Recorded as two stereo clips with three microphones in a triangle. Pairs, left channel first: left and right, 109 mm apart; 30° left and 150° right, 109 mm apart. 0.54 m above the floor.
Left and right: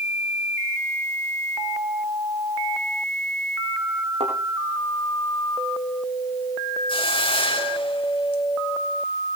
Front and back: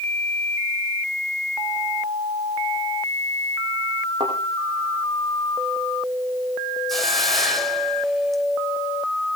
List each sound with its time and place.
4.2 s a thud: 105° right, 6.5 m
6.9 s a hiss: 120° left, 3 m